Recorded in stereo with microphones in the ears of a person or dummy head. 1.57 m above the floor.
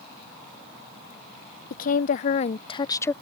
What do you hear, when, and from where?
1.7 s a woman speaking: 55° left (ahead or behind); by 3.1 s 10° left (ahead or behind)